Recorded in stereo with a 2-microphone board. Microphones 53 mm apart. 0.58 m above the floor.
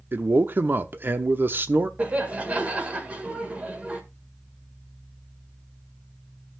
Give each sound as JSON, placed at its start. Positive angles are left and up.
{"t": 0.1, "sound": "a man speaking", "side_deg": -40, "distance_m": 0.8}
{"t": 2.0, "sound": "laughter", "side_deg": -25, "distance_m": 1.7}